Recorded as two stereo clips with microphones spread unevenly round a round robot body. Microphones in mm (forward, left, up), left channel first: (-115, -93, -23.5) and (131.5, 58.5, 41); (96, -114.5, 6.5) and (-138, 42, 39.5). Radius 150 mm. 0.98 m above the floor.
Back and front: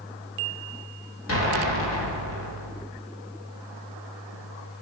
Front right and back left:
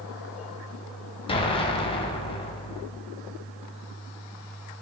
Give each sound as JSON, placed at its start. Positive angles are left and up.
{"t": 1.3, "sound": "an explosion", "azimuth_deg": -105, "distance_m": 7.0}